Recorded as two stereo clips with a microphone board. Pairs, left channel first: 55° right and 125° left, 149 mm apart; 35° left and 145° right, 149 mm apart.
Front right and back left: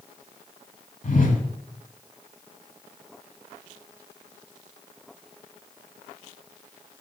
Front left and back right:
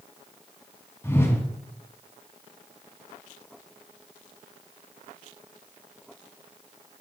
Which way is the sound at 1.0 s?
35° right.